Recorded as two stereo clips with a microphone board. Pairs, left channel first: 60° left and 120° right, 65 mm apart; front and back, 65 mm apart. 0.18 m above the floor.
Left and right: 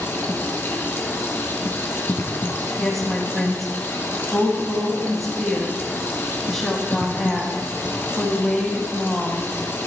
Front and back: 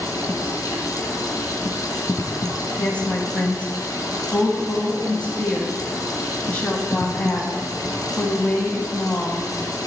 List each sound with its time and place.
0.0 s running water: 5° left, 1.7 m
2.8 s a woman speaking: 25° right, 1.2 m